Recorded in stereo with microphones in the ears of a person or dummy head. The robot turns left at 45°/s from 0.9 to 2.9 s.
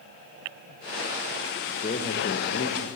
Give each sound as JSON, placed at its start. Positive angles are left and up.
{"t": 1.7, "sound": "a man speaking", "azimuth_deg": 145, "distance_m": 1.5}